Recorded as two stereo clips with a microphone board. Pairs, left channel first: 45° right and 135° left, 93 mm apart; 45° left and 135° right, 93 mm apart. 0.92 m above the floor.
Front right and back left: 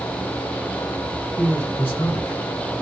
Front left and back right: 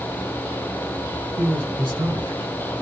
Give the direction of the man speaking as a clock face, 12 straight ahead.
3 o'clock.